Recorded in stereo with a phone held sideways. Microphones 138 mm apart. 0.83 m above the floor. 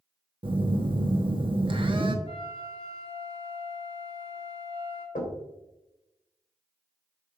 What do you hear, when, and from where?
0.4 s a phone buzzing: 40° right (ahead or behind), 0.8 m
2.2 s a flute: 45° left (ahead or behind), 2.5 m
5.2 s knocking: 65° left (ahead or behind), 2.5 m